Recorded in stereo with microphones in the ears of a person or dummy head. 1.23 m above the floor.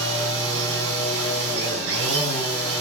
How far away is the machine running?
About 8.5 m.